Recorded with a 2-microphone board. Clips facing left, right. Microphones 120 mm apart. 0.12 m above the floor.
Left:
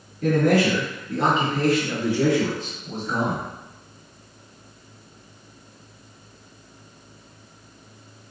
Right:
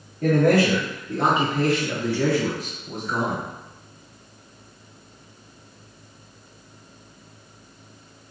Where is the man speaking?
45° right (ahead or behind), 1.6 m; by 3.5 s 45° left (ahead or behind), 2 m.